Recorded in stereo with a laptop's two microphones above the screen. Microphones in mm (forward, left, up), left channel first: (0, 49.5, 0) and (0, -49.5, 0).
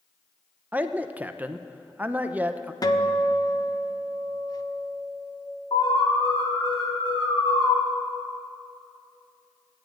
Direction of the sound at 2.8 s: 40° left (ahead or behind).